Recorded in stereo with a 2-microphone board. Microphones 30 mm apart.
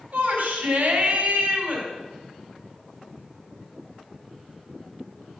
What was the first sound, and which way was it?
A shout, 45° right (ahead or behind).